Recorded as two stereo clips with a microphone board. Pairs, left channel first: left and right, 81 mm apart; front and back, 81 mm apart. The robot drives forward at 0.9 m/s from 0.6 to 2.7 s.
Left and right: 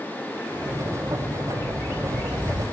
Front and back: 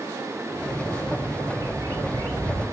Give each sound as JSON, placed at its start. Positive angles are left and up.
{"t": 1.5, "sound": "a bird", "azimuth_deg": 145, "distance_m": 1.8}